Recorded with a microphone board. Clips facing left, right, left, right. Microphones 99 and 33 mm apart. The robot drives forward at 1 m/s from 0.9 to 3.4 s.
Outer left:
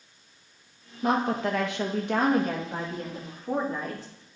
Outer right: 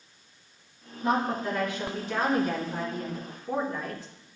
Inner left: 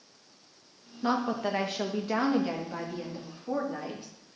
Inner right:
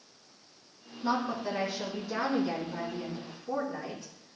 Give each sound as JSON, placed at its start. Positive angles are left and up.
{"t": 1.0, "sound": "a woman speaking", "side_deg": 65, "distance_m": 1.2}